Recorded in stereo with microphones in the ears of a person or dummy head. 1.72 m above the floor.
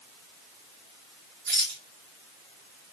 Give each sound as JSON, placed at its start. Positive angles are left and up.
{"t": 1.5, "sound": "a rattle", "side_deg": -50, "distance_m": 3.5}